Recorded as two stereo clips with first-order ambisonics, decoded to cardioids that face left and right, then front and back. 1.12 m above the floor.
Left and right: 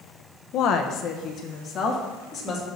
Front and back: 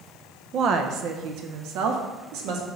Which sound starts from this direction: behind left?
A woman speaking, at 0.5 s.